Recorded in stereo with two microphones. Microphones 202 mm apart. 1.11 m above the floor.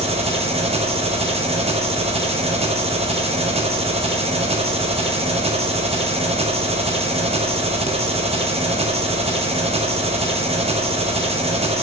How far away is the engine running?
About 0.9 m.